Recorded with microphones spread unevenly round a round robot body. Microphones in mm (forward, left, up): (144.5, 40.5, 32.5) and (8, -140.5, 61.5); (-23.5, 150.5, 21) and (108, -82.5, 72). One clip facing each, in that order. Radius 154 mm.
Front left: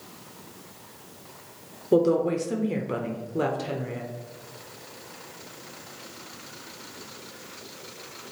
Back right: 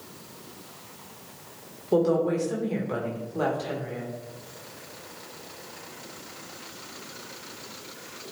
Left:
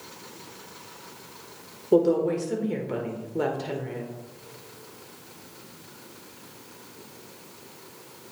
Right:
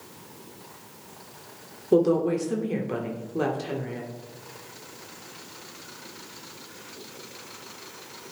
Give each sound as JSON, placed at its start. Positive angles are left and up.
{"t": 1.9, "sound": "a woman speaking", "azimuth_deg": 30, "distance_m": 1.2}